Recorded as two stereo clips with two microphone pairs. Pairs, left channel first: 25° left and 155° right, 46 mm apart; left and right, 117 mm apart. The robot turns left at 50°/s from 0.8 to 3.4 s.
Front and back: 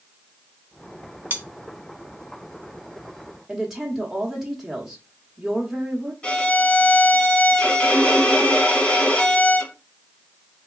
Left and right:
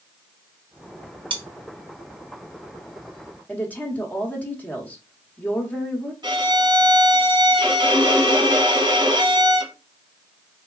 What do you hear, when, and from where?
1.3 s cutlery clinking: 120° right, 0.7 m; by 1.4 s 130° right, 0.7 m
3.5 s a woman speaking: 135° left, 0.9 m
6.2 s a violin: 40° right, 1.0 m